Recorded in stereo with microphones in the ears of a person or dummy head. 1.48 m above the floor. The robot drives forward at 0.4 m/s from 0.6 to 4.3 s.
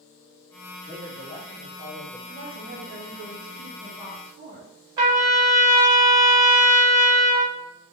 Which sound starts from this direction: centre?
A trumpet, at 5.0 s.